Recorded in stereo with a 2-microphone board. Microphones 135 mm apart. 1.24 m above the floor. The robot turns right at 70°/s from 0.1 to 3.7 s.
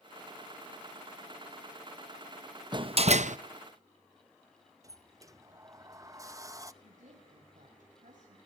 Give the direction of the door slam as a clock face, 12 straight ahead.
5 o'clock.